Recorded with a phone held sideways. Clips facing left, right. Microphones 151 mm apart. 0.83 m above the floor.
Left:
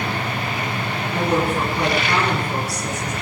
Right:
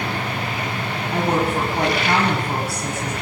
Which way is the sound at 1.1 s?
55° right (ahead or behind).